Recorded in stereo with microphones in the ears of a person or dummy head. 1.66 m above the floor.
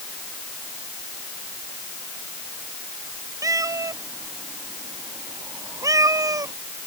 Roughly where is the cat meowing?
Centre.